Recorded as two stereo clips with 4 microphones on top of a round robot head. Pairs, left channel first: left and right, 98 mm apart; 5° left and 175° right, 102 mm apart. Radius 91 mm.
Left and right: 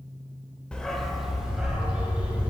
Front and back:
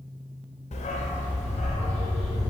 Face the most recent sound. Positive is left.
turn(degrees=-15)